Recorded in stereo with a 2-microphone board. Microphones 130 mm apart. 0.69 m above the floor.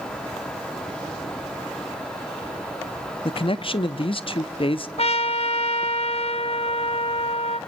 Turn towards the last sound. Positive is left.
turn(degrees=50)  # may be behind; listen again after turning